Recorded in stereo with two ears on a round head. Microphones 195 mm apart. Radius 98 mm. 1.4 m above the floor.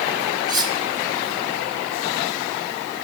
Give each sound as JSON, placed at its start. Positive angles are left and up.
{"t": 0.5, "sound": "cutlery clinking", "side_deg": -20, "distance_m": 2.5}